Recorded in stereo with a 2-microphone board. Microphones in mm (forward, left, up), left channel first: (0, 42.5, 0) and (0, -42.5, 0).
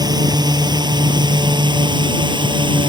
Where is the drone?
55° right (ahead or behind); by 2.9 s 70° right (ahead or behind).